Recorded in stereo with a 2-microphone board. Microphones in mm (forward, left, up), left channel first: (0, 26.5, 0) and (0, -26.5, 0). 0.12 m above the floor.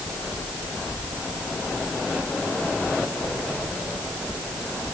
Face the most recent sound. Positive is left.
No sound to turn to.